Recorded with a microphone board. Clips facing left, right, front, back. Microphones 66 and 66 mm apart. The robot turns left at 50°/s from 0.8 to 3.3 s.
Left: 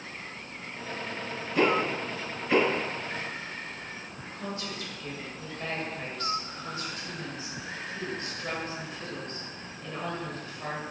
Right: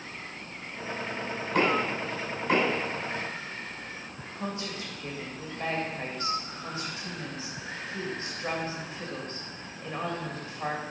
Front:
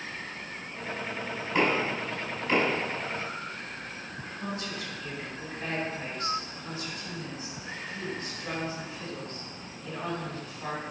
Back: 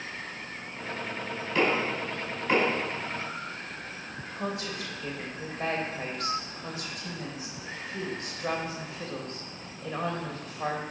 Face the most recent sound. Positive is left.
turn(degrees=-155)